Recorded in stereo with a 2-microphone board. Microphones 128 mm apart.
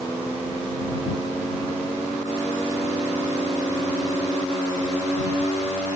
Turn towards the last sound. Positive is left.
No sound to turn to.